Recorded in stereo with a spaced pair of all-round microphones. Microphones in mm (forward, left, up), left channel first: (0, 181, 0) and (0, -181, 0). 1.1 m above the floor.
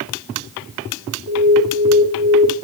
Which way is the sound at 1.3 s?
45° right (ahead or behind).